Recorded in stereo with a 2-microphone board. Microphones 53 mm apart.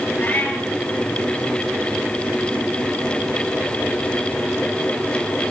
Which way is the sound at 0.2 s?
35° left (ahead or behind).